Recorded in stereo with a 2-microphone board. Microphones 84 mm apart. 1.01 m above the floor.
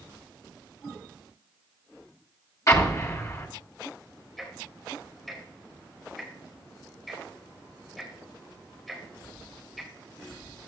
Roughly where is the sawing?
I don't hear sawing.